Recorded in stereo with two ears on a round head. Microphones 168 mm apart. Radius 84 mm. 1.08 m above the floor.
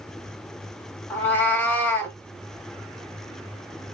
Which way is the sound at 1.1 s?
10° left (ahead or behind).